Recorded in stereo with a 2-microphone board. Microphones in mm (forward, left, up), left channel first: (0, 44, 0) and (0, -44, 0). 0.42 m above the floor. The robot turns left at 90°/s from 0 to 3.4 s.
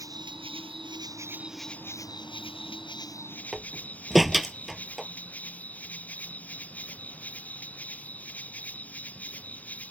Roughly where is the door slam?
Centre.